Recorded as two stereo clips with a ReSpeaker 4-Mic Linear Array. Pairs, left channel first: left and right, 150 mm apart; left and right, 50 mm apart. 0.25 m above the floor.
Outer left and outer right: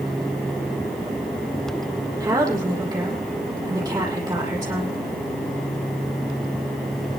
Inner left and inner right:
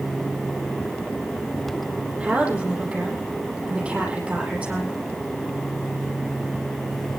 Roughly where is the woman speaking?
Right.